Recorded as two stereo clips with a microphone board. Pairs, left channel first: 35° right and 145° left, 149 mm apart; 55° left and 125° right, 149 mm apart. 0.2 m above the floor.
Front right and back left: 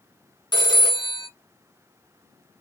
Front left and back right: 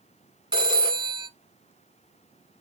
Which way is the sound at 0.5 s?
85° right.